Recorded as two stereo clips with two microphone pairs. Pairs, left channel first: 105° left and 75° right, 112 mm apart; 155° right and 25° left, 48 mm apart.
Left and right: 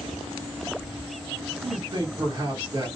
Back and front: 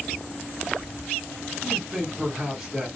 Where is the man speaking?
55° right, 1.5 m.